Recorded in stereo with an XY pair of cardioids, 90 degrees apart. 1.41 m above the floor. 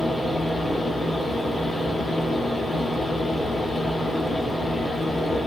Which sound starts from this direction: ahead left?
A fan, at 0.0 s.